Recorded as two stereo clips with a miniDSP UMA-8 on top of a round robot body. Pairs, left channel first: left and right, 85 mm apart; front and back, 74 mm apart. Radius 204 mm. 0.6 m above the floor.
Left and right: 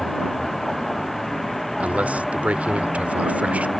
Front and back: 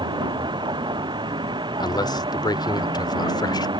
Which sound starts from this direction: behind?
A vehicle, at 0.0 s.